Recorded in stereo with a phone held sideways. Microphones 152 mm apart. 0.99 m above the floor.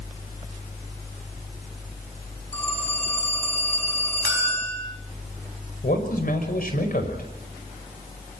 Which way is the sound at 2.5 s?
10° left (ahead or behind).